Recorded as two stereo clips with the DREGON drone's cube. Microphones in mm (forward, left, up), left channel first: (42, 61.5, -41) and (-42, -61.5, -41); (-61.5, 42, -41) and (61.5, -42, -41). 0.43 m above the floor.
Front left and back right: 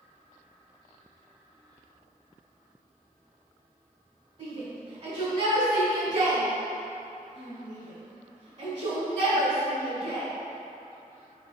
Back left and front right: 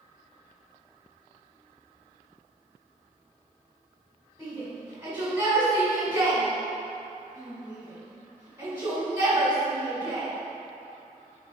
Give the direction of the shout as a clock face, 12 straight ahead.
3 o'clock.